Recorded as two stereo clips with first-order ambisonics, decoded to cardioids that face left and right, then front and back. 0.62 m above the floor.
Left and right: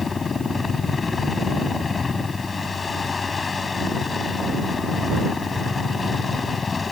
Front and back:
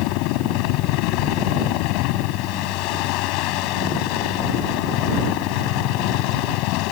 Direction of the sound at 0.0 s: 20° left.